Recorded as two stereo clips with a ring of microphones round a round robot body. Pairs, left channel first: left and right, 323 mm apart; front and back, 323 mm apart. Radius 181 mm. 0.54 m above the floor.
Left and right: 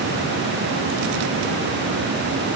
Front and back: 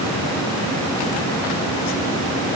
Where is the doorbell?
I don't hear a doorbell.